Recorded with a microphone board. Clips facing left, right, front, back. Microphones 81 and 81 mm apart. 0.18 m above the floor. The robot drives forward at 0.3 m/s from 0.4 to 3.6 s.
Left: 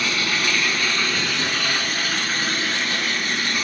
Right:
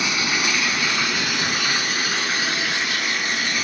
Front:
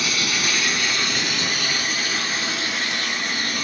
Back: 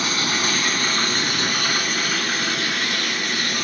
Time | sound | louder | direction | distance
0.0 | running water | even, back 2 dB | 160° right | 1.0 m